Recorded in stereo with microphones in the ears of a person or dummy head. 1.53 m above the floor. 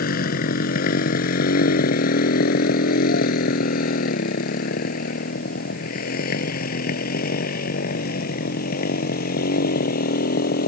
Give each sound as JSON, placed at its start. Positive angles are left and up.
{"t": 0.0, "sound": "a motorcycle", "side_deg": 60}